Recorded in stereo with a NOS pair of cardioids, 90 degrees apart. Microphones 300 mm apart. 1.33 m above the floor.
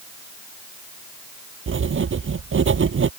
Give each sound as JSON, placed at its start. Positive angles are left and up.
{"t": 1.7, "sound": "writing", "azimuth_deg": -40}